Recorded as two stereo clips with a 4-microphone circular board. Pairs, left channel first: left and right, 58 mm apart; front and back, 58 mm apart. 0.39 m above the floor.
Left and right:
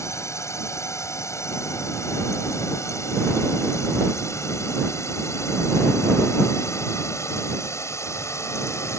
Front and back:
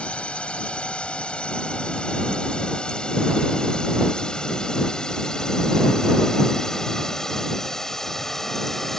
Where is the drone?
65° left; by 9.0 s 80° left.